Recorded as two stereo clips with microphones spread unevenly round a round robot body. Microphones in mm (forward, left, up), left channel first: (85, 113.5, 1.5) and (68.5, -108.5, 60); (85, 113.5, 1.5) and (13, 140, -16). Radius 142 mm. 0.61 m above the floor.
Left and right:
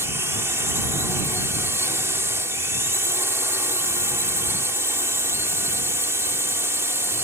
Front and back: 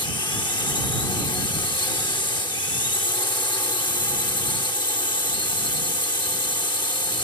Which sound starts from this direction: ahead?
A drone, at 0.0 s.